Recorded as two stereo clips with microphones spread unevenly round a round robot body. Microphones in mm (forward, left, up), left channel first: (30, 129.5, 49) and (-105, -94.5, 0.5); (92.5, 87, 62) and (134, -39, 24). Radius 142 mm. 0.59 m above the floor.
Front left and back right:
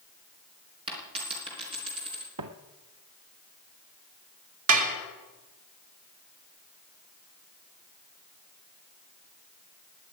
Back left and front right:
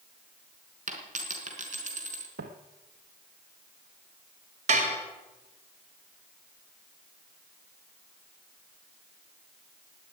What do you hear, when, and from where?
0.9 s a dropped coin: 50° right, 3.5 m
2.4 s footsteps: 90° right, 1.3 m
4.7 s dishes clattering: 105° right, 2 m